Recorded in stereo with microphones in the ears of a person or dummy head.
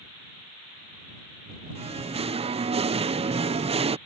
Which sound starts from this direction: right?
Singing, at 1.8 s.